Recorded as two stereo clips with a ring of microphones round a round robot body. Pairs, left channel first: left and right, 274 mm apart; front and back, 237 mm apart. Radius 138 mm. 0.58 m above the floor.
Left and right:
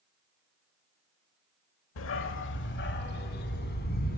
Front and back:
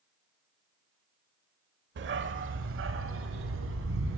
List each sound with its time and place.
2.0 s a dog barking: 135° left, 0.9 m; by 4.2 s 150° left, 2 m